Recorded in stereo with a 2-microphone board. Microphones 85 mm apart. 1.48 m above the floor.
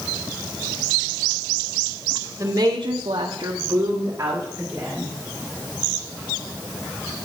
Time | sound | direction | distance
2.4 | a woman speaking | 35° right (ahead or behind) | 1.1 m